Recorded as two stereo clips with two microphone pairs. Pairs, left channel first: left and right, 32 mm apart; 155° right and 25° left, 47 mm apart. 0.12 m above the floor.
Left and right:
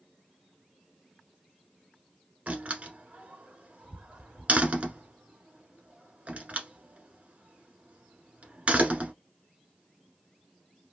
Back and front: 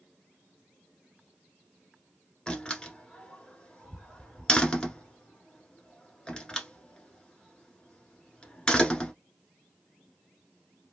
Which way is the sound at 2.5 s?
100° right.